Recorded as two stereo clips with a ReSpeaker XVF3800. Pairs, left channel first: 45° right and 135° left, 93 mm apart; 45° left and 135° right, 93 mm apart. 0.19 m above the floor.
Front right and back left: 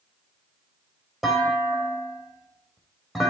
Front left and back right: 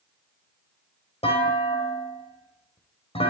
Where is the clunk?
45° left, 4 m.